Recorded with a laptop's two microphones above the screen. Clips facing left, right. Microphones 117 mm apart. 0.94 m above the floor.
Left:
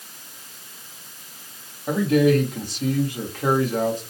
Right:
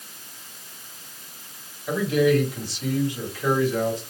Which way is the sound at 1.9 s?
50° left (ahead or behind).